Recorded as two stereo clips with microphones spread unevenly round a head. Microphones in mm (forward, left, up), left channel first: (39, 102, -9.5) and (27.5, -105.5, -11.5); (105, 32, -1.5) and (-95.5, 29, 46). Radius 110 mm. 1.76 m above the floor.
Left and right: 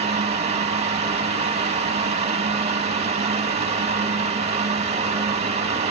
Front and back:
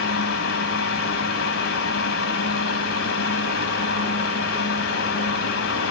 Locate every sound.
0.0 s a fan: 35° right, 2.5 m